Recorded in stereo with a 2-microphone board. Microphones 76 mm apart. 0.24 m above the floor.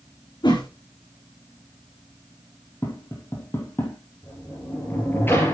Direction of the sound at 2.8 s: 30° left (ahead or behind).